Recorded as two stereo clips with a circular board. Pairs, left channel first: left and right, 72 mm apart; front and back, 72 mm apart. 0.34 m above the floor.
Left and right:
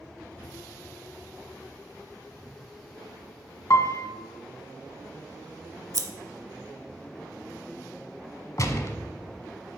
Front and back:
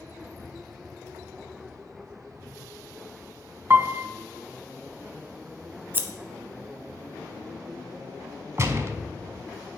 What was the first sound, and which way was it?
A piano, 125° left.